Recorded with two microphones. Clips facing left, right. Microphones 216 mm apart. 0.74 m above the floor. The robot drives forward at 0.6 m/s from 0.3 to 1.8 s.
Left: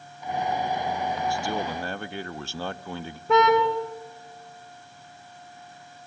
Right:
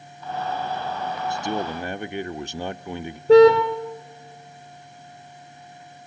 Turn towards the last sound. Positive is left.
turn(degrees=-30)  # may be behind; listen again after turning